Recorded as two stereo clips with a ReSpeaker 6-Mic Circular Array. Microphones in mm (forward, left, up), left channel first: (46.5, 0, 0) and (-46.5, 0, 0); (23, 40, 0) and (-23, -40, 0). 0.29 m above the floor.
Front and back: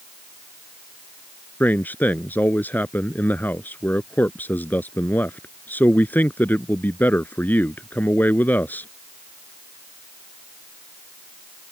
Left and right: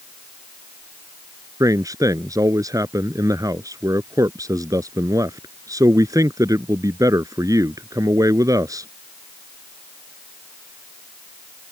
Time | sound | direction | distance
1.6 | a man speaking | 70° right | ?